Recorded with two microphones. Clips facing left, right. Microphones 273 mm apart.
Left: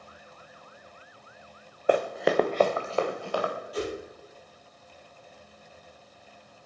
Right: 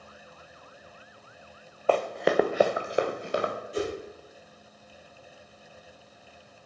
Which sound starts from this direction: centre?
Running footsteps, at 1.9 s.